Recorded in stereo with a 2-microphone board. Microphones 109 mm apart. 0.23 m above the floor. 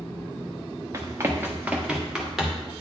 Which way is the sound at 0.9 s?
30° right (ahead or behind).